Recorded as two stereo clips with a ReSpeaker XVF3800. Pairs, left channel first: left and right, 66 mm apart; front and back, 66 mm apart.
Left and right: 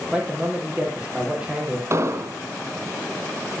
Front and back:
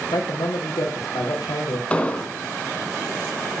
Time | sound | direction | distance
0.1 | a man speaking | 15° right | 5.5 m
1.9 | an explosion | 65° right | 1.8 m